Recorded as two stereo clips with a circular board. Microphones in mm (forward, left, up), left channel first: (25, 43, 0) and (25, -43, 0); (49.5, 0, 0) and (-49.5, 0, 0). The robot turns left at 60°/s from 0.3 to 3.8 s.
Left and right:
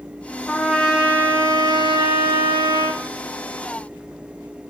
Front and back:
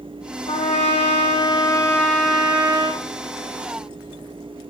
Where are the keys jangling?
No keys jangling in this recording.